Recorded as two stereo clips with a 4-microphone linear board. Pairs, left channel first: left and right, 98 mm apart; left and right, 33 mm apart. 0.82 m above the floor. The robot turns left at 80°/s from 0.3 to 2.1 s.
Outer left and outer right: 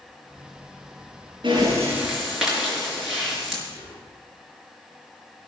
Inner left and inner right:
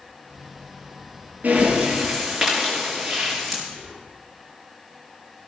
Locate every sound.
1.4 s breathing: 125° right, 5 m; by 3.6 s straight behind, 5 m
3.7 s whispering: 60° left (ahead or behind), 3.5 m